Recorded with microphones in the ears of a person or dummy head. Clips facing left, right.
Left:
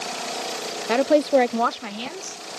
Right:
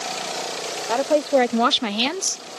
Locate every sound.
0.9 s a woman speaking: 30° left (ahead or behind); by 2.4 s 85° right